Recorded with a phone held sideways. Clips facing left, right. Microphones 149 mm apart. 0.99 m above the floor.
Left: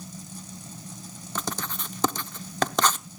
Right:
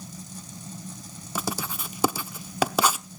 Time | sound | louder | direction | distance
1.4 | writing | right 2 dB | 10° right (ahead or behind) | 0.6 m